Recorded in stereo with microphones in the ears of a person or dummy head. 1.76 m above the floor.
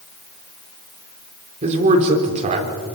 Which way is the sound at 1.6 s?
35° right (ahead or behind).